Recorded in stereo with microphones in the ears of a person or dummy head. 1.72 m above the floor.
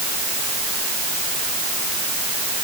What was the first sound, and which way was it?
Only background noise.